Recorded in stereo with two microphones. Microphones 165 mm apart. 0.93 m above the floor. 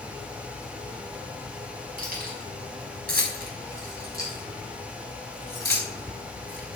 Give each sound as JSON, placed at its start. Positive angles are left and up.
{"t": 2.0, "sound": "keys jangling", "side_deg": -65, "distance_m": 6.0}